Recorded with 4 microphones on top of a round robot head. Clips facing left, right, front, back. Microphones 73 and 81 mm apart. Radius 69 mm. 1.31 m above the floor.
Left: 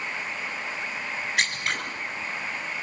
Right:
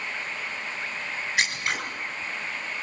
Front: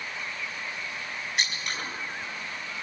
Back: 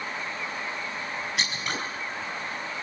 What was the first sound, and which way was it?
Scissors, 175° right.